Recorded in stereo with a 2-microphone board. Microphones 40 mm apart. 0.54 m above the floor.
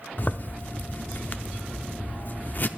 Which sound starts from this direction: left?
A zipper, at 0.2 s.